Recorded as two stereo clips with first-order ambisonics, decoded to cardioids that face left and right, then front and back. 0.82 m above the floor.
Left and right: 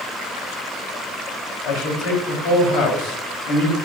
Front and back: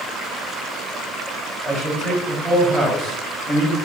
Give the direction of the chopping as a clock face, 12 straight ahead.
I don't hear chopping.